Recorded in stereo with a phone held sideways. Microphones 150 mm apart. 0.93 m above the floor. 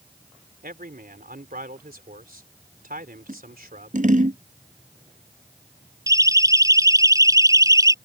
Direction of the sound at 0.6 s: 80° right.